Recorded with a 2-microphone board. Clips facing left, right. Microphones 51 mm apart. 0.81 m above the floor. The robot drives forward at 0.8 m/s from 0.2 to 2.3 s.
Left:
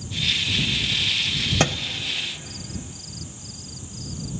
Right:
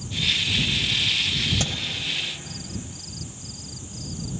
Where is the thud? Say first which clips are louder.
Left 7 dB; 65° left (ahead or behind), 1.0 m.